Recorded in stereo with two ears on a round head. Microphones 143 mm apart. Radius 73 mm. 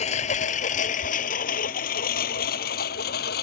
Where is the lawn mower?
45° left (ahead or behind); by 3.4 s 70° left (ahead or behind).